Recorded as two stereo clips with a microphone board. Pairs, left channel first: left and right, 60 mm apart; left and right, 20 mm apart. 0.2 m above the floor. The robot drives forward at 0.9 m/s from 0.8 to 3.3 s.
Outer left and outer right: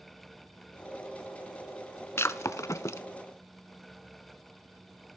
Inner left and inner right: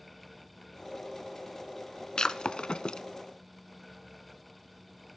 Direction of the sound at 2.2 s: 45° left (ahead or behind).